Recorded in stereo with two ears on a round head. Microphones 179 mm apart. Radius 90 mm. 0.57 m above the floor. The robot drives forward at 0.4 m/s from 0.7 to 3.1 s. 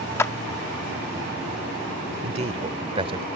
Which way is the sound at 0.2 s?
15° left (ahead or behind).